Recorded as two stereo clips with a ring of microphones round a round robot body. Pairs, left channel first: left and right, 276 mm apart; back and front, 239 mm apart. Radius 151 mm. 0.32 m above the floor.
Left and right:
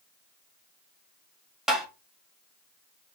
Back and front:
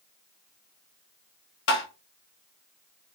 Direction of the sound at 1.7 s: Straight behind.